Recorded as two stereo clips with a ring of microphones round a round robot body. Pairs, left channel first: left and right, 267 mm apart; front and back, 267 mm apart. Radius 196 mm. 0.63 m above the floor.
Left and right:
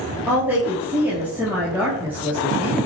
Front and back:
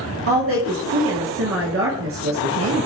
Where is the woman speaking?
170° right, 1.1 m.